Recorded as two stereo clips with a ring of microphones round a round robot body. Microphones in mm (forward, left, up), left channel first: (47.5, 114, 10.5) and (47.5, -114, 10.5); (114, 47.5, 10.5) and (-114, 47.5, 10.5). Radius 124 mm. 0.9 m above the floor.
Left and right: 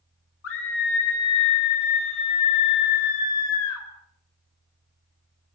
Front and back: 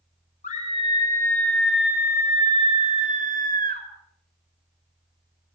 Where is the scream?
60° left, 3 m; by 3.9 s 130° left, 4.5 m.